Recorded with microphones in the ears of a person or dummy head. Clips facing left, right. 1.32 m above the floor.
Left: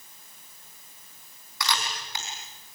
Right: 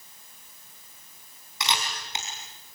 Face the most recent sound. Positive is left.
turn(degrees=-25)  # may be behind; listen again after turning